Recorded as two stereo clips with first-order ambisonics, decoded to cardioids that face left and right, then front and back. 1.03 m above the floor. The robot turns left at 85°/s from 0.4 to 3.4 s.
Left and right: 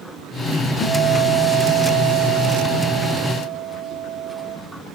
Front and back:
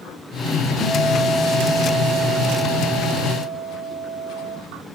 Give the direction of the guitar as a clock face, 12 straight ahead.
10 o'clock.